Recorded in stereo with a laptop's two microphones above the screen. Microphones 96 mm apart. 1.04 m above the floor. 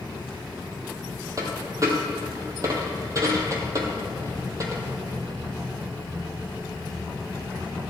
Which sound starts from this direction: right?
A dropped coin, at 1.4 s.